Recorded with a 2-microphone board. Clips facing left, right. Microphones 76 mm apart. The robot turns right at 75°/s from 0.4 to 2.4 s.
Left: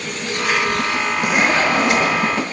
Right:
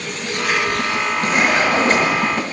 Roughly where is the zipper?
Behind.